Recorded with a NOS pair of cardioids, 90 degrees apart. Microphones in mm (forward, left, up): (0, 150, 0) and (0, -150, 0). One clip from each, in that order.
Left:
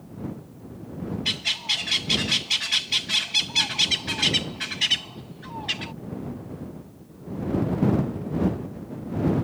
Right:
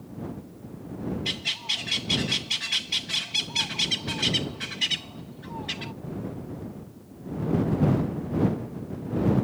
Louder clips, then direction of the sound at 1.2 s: Left 4 dB; 25° left.